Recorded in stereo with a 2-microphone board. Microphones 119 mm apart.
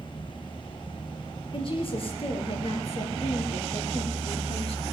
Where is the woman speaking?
50° left (ahead or behind), 3 m; by 4.9 s 60° left (ahead or behind), 2.5 m.